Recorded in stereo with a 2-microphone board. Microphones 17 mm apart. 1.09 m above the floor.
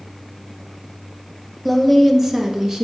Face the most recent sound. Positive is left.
turn(degrees=-35)  # may be behind; listen again after turning